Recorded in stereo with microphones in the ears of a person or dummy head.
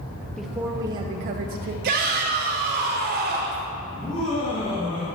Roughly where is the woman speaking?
Centre.